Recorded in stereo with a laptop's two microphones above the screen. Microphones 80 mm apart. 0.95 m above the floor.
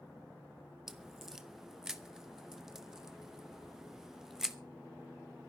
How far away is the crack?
About 0.9 m.